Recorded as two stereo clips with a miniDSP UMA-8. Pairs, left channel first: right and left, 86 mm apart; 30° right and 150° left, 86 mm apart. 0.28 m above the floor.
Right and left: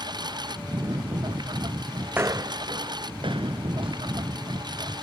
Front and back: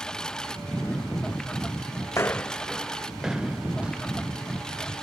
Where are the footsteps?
20° left; by 4.8 s 75° left.